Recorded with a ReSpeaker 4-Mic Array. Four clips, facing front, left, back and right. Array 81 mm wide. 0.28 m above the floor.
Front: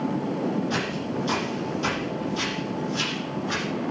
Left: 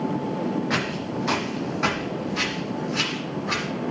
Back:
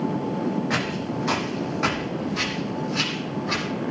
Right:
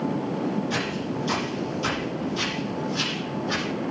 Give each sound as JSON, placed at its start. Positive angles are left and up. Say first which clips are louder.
{"t": 0.7, "sound": "footsteps", "louder": "left 1 dB, back 1 dB", "azimuth_deg": 145, "distance_m": 6.0}